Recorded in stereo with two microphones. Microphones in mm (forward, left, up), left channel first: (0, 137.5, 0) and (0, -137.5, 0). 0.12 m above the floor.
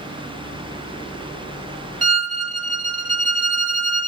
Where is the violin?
65° right (ahead or behind), 0.5 m.